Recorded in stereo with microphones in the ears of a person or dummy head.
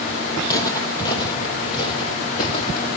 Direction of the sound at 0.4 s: 20° left (ahead or behind).